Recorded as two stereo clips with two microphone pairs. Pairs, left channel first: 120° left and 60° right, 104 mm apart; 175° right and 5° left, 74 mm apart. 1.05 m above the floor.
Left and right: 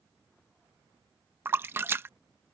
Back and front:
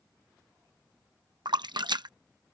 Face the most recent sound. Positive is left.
turn(degrees=10)